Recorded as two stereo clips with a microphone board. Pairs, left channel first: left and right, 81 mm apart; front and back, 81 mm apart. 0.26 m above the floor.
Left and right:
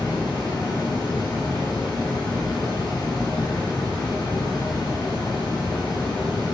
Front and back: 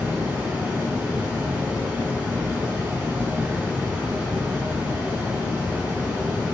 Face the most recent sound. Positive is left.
turn(degrees=105)